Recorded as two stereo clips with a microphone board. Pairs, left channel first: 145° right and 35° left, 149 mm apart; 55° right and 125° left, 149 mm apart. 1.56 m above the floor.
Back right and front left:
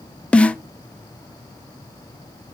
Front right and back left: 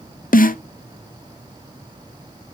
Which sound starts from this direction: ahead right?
A snare drum, at 0.3 s.